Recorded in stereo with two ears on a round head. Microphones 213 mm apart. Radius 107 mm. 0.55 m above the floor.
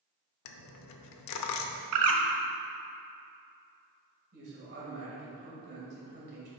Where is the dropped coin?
75° left (ahead or behind), 0.6 m.